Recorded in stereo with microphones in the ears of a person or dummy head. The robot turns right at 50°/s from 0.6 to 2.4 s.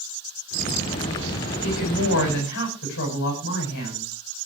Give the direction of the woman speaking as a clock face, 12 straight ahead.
9 o'clock.